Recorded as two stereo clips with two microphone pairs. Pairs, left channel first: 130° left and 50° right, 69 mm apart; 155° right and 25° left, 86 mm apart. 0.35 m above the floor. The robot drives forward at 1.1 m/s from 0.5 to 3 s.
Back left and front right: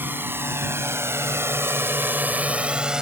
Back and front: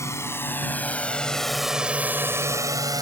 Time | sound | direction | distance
0.0 | a drone | 105° right | ?